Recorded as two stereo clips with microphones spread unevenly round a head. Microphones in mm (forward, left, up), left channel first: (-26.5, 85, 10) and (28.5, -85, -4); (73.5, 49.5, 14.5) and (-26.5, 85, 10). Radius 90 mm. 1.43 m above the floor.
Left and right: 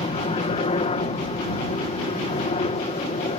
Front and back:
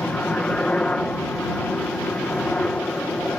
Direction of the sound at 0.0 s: 60° left.